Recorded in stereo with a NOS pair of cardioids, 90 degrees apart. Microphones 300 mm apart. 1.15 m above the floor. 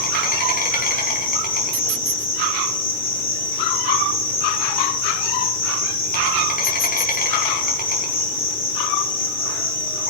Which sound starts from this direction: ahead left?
An insect, at 0.0 s.